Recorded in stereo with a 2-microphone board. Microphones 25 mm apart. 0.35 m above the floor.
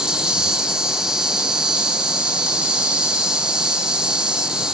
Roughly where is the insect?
Right.